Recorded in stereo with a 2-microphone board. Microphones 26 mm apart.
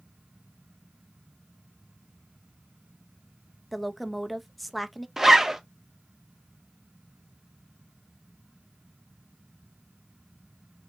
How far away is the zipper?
About 0.7 m.